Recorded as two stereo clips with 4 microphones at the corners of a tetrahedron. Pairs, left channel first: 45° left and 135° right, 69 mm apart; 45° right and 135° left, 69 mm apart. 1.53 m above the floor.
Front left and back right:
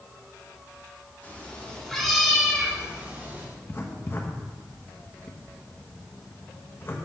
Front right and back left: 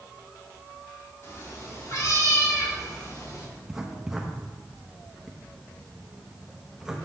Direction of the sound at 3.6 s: 55° left.